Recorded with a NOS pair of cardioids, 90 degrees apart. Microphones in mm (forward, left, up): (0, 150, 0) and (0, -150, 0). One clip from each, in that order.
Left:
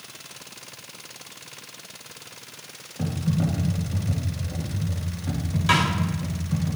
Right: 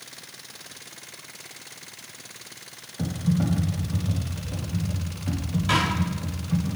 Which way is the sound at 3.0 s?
Straight ahead.